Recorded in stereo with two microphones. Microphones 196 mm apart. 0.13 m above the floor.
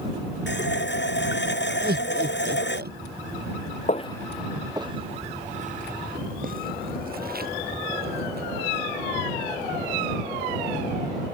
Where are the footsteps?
40° left (ahead or behind); by 8.5 s 55° right (ahead or behind).